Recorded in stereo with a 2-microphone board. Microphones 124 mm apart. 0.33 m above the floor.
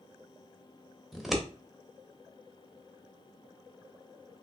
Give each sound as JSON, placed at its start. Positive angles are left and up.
{"t": 1.1, "sound": "scissors", "side_deg": 0, "distance_m": 0.6}